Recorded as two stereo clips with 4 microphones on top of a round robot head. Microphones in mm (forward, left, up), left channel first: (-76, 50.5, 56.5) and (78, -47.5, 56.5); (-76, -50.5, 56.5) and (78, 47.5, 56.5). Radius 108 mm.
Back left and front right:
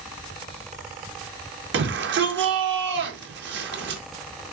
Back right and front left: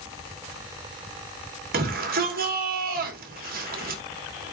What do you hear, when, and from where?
1.7 s a shout: 10° right, 3 m